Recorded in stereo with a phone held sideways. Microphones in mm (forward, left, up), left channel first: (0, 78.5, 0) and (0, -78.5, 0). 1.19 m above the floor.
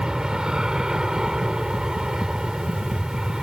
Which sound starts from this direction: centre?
An aircraft, at 0.0 s.